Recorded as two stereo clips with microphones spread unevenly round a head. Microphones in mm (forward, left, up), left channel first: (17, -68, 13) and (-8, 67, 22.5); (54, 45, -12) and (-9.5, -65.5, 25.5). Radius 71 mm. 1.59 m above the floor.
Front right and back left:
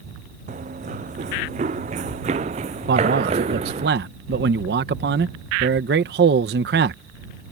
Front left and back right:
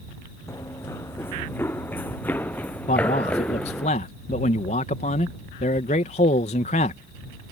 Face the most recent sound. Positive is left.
turn(degrees=110)